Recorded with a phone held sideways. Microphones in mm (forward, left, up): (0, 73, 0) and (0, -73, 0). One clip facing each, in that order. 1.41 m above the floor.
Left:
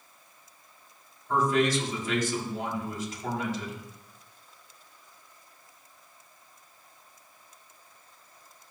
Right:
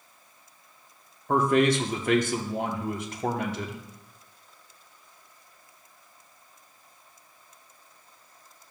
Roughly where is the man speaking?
Right.